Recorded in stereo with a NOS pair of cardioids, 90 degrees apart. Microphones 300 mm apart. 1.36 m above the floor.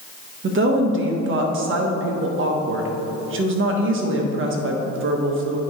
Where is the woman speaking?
45° right, 1.3 m.